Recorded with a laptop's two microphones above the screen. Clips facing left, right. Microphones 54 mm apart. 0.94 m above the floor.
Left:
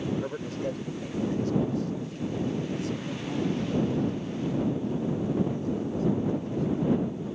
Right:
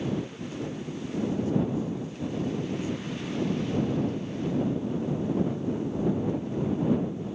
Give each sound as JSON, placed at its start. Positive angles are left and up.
{"t": 0.2, "sound": "a man speaking", "side_deg": 85}